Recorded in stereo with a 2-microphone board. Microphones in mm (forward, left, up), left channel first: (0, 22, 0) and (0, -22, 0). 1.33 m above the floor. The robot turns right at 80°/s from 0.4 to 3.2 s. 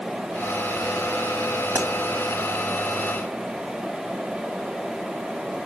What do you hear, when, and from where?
1.8 s a pop: 85° right, 2.5 m; by 1.9 s 80° right, 2.5 m